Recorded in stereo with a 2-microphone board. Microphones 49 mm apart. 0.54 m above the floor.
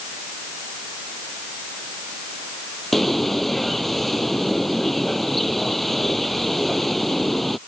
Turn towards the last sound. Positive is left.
turn(degrees=0)  # may be behind; listen again after turning